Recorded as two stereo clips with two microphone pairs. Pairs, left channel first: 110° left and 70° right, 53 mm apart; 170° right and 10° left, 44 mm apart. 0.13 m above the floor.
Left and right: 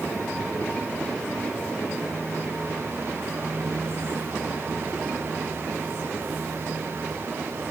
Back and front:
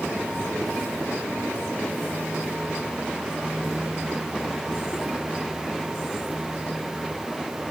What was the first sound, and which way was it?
Only background noise.